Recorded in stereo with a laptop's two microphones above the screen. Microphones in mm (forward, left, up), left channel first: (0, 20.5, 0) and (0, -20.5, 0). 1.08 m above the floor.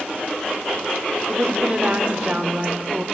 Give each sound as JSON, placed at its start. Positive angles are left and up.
{"t": 1.3, "sound": "a woman speaking", "side_deg": -35, "distance_m": 3.0}